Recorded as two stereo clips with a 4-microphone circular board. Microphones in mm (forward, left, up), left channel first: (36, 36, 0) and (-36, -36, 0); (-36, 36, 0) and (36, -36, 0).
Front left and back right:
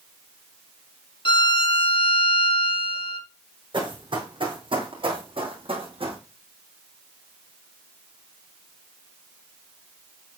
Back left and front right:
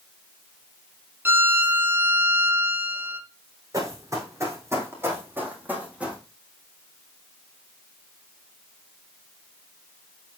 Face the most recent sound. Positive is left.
turn(degrees=-125)